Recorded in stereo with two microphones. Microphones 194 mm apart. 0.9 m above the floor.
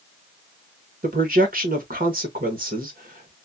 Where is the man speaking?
50° right (ahead or behind), 1.2 m.